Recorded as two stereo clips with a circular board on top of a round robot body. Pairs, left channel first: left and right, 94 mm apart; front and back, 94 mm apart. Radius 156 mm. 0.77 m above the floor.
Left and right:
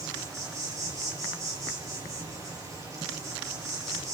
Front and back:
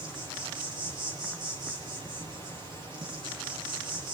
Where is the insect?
145° right, 5 m.